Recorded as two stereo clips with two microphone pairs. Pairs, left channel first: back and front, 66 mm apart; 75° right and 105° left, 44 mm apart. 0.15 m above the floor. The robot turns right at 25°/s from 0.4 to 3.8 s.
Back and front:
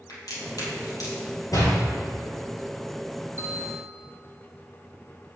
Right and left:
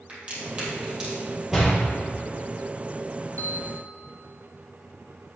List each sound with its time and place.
0.1 s a crack: 160° left, 3.5 m; by 1.2 s 175° left, 3.5 m
1.5 s a door slam: straight behind, 3 m; by 1.8 s 170° right, 3 m
3.4 s a bell: 55° right, 2 m; by 3.9 s 45° right, 2 m